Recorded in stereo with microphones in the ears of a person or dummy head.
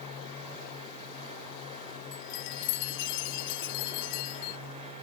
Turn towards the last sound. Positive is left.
turn(degrees=65)  # may be behind; listen again after turning